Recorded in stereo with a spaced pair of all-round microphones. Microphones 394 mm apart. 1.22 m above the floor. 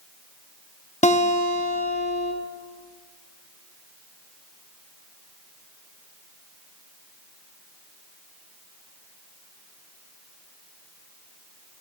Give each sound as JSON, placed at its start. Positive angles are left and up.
{"t": 1.0, "sound": "a guitar", "side_deg": 15, "distance_m": 0.8}